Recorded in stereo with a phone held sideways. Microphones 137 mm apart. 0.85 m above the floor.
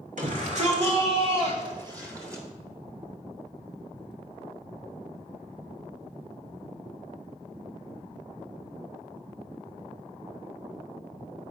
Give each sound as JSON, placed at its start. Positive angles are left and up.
{"t": 0.2, "sound": "a shout", "side_deg": -65, "distance_m": 2.5}